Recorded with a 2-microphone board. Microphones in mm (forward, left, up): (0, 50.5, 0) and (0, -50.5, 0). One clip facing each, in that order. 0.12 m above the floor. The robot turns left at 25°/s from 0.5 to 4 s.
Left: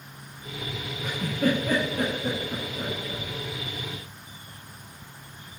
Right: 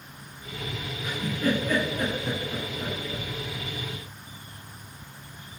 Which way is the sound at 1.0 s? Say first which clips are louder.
Left 2 dB; 80° left.